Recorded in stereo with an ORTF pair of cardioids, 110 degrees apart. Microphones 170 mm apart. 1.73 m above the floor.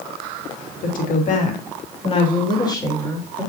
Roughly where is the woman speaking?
Ahead left.